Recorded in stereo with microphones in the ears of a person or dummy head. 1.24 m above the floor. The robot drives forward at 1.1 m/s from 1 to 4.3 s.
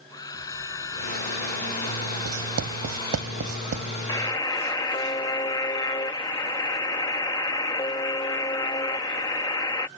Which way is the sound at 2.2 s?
85° right.